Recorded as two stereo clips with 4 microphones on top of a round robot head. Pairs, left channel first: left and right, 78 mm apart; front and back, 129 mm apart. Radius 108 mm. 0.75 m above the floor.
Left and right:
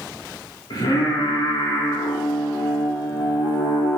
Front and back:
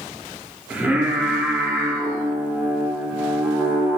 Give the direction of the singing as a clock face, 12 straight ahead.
9 o'clock.